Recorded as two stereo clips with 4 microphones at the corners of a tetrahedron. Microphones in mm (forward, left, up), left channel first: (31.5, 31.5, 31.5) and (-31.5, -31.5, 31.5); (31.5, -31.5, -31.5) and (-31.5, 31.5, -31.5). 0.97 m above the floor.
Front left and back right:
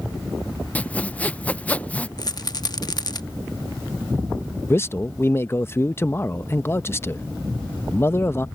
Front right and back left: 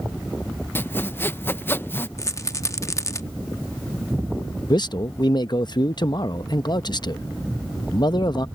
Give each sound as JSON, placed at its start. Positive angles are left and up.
{"t": 0.8, "sound": "sawing", "azimuth_deg": -15}
{"t": 2.2, "sound": "a rattle", "azimuth_deg": 10}
{"t": 4.7, "sound": "a man speaking", "azimuth_deg": -15}